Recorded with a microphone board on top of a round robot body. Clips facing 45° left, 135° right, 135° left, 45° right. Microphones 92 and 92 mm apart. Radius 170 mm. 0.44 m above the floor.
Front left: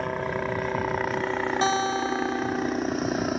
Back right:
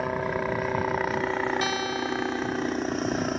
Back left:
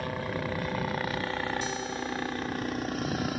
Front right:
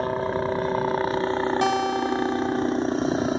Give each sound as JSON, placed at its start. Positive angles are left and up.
{"t": 0.0, "sound": "a helicopter", "azimuth_deg": -50}
{"t": 1.6, "sound": "a guitar", "azimuth_deg": -20}